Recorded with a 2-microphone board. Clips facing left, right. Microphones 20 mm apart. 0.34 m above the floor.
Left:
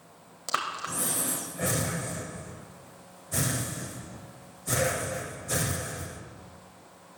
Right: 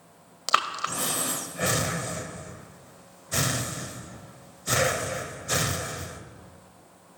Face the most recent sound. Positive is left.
turn(degrees=-50)  # may be behind; listen again after turning